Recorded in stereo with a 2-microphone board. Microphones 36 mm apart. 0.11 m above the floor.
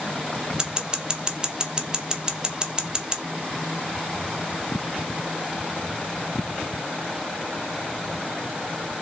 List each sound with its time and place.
0.6 s scissors: 25° right (ahead or behind), 0.6 m